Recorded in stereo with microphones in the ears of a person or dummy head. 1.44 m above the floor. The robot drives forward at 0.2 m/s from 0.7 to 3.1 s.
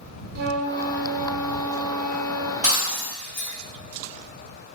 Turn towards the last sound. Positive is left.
turn(degrees=40)  # may be behind; listen again after turning